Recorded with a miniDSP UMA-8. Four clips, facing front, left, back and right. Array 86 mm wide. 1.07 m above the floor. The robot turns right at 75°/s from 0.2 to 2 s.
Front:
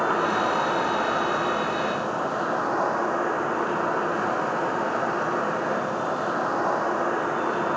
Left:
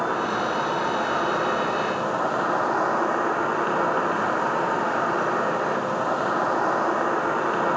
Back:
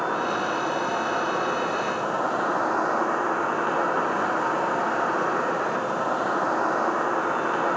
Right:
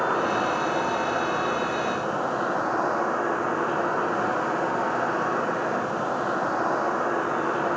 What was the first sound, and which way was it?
An insect, 20° right.